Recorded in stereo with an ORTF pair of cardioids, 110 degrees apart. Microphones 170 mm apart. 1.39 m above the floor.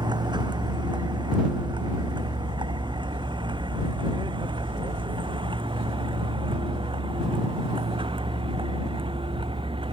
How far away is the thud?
No thud in this recording.